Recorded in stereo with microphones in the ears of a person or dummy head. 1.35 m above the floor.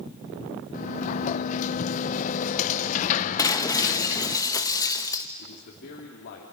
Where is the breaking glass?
20° left (ahead or behind), 1.0 m.